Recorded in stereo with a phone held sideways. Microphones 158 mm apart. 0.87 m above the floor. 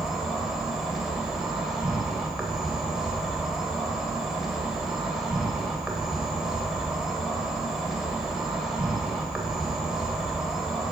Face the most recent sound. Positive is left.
turn(degrees=-5)  # may be behind; listen again after turning